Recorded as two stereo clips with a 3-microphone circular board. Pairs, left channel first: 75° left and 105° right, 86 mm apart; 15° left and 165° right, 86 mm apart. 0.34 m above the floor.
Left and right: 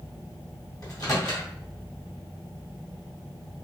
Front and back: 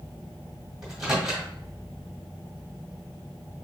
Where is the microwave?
110° left, 1.9 m.